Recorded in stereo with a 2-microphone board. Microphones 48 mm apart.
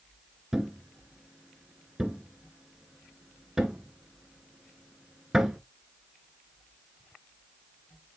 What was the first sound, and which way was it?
A thud, 10° right (ahead or behind).